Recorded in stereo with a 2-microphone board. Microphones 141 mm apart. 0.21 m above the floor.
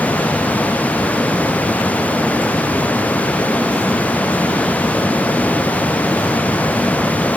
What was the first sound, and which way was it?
Only background noise.